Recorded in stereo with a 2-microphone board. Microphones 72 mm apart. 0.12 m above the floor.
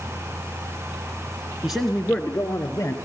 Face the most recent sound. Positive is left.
turn(degrees=40)  # may be behind; listen again after turning